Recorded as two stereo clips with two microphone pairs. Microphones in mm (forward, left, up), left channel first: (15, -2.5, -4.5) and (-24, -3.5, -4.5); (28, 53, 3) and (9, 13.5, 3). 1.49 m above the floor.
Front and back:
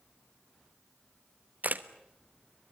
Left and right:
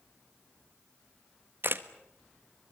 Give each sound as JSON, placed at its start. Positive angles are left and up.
{"t": 1.6, "sound": "a camera shutter", "azimuth_deg": -140, "distance_m": 1.3}